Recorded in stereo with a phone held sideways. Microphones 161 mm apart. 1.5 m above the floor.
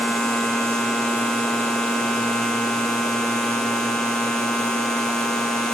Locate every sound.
0.0 s a machine running: 5° left (ahead or behind)